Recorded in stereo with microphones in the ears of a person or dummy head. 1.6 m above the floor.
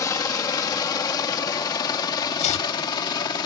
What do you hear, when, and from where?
0.0 s a helicopter: 20° left (ahead or behind); by 3.5 s 25° left (ahead or behind)
2.4 s chopping: 50° left (ahead or behind)